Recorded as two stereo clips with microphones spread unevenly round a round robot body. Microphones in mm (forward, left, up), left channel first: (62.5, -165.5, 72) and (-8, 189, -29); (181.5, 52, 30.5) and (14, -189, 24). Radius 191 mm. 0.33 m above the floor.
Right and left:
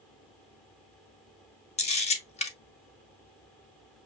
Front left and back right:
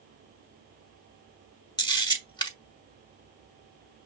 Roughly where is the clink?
I don't hear a clink.